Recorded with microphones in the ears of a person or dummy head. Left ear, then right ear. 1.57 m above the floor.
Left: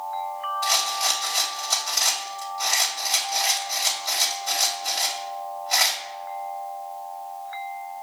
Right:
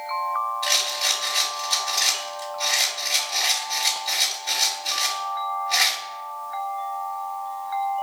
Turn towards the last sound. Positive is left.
turn(degrees=50)  # may be behind; listen again after turning